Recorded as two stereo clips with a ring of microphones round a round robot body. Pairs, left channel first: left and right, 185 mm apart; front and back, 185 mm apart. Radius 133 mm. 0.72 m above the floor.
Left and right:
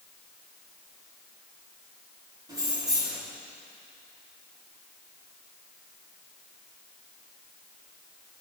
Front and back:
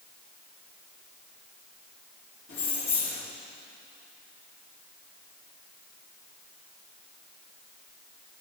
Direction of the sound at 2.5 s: 20° right.